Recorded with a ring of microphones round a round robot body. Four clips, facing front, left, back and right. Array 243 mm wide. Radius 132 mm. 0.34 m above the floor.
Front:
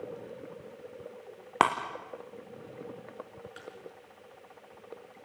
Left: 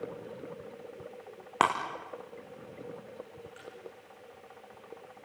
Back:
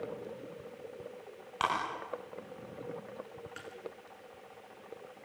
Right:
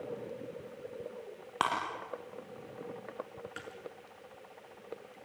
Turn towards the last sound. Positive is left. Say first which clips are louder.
# right 1 dB, front 1 dB
turn(degrees=-100)